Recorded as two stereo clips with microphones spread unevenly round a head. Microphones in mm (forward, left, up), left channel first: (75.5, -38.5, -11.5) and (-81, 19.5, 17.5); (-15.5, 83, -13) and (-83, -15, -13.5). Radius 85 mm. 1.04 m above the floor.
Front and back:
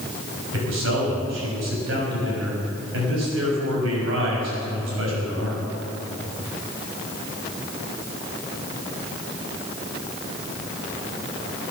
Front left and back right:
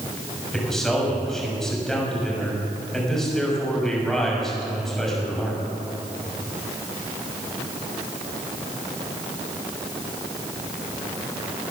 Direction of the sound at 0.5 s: 140° left.